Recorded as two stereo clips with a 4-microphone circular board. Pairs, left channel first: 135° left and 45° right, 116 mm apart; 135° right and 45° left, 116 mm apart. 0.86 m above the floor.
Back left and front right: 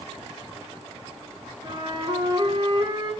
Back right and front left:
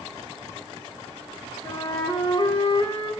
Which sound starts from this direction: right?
A flute, at 1.6 s.